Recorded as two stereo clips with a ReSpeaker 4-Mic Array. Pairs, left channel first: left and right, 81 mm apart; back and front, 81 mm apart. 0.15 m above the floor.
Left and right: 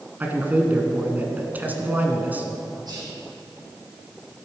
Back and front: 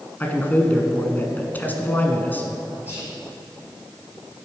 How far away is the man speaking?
About 1.4 m.